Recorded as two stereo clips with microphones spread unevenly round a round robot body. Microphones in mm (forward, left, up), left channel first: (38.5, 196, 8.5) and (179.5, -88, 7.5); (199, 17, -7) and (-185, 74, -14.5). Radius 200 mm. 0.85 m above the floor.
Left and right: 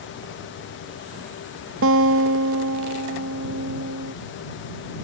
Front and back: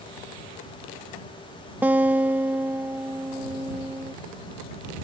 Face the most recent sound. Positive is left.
turn(degrees=-105)